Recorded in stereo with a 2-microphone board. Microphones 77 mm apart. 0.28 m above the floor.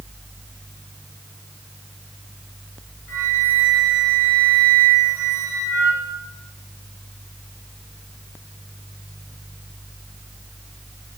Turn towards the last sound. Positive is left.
turn(degrees=-30)  # may be behind; listen again after turning